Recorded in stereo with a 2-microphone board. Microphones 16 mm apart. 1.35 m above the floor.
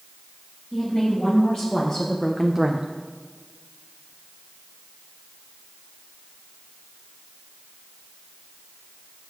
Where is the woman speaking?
60° left (ahead or behind), 3 m; by 2.9 s 65° right (ahead or behind), 0.7 m.